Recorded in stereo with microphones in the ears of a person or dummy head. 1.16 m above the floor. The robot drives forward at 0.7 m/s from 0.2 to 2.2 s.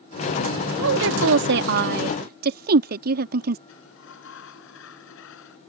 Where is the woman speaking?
70° right (ahead or behind); by 3.6 s 50° right (ahead or behind).